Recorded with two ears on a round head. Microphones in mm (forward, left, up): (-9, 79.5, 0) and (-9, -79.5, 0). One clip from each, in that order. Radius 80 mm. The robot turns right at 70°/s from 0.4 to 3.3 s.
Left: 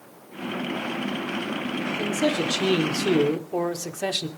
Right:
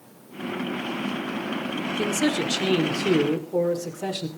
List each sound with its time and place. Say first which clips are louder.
2.0 s a man speaking: even; 45° right, 2.5 m; by 4.3 s 45° left, 2.5 m